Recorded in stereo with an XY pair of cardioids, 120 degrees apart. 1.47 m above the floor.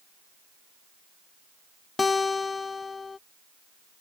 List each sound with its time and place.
2.0 s a guitar: 25° left